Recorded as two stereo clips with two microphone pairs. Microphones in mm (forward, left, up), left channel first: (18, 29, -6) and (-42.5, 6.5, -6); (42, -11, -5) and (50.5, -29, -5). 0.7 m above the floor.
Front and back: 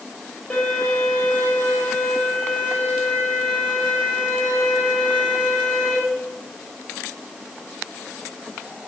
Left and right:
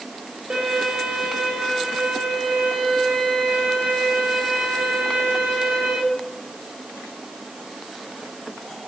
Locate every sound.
0.5 s a violin: 50° right, 4 m